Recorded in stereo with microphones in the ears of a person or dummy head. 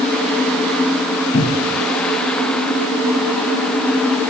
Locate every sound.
1.3 s a cupboard door: 35° left (ahead or behind), 1.2 m